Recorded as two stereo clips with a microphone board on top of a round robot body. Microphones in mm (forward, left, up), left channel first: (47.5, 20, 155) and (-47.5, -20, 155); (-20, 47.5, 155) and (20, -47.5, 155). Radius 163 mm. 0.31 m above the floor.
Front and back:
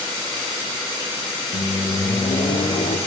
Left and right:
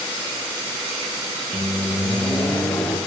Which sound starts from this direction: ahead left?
A microwave, at 1.5 s.